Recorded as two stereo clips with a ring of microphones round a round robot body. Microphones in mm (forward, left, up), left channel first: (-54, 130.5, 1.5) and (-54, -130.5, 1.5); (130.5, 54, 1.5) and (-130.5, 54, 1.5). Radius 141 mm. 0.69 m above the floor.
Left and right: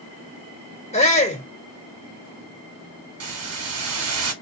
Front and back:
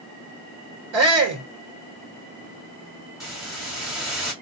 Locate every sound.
0.9 s a shout: 155° left, 1.9 m
3.2 s a hiss: 90° right, 1.5 m